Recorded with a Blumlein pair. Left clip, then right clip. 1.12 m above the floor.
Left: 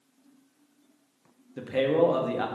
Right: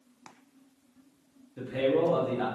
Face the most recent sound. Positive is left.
turn(degrees=20)